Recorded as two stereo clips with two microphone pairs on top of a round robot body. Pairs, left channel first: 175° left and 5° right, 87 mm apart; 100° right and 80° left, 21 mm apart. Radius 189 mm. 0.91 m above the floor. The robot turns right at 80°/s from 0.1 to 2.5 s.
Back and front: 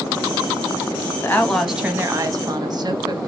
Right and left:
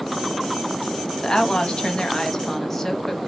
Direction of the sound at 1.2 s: 130° right.